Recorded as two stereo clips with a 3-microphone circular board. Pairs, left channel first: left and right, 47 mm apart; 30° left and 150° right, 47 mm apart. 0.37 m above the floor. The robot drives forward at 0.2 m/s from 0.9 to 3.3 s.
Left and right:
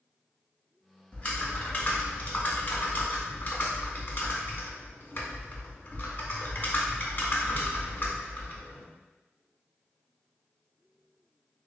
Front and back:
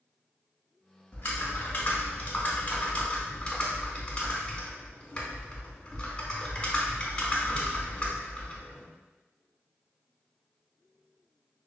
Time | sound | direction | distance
1.1 | typing on a keyboard | 40° left | 0.7 m